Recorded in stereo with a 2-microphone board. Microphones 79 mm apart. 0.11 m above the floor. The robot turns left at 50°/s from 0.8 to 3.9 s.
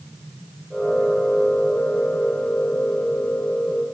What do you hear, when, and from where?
Only background noise.